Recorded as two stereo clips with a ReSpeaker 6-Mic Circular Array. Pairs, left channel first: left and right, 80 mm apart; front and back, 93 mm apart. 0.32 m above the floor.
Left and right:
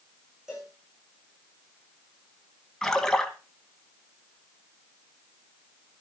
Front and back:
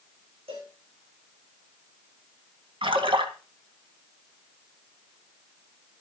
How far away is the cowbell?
About 6.5 m.